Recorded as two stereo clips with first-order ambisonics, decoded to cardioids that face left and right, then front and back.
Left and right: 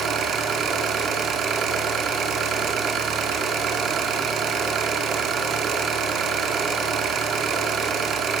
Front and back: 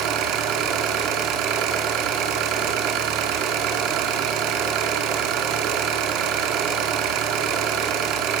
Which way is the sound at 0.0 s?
145° right.